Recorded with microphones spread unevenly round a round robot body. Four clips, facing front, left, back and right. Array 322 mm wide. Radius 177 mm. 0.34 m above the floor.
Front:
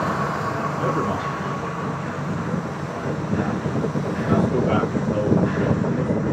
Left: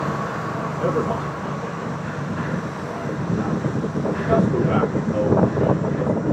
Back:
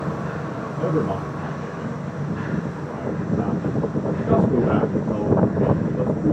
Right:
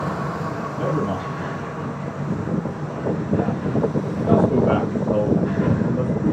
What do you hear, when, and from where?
0.8 s a man speaking: 140° right, 5 m; by 6.3 s 90° right, 1.8 m